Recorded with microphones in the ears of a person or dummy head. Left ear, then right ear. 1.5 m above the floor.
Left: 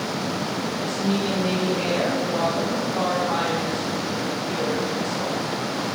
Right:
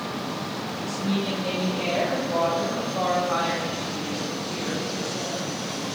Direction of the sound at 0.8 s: 10° left (ahead or behind).